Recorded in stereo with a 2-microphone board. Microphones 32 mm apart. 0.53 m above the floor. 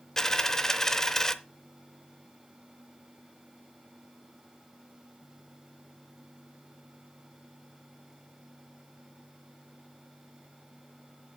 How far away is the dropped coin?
About 0.6 m.